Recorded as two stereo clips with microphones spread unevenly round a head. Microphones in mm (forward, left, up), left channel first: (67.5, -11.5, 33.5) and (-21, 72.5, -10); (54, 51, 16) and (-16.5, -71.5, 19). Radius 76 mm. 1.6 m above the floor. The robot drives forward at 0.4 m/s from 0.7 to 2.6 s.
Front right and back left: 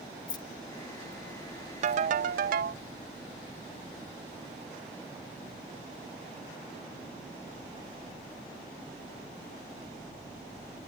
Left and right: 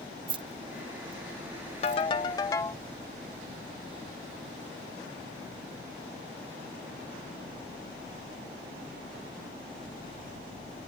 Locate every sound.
0.3 s keys jangling: 75° right; by 2.0 s 115° right
1.8 s a ringtone: 105° left; by 2.8 s 130° left